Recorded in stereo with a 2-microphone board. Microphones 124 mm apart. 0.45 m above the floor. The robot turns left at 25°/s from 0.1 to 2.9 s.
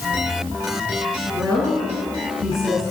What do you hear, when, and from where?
1.3 s a woman speaking: 175° left, 4 m; by 2.8 s 135° left, 4 m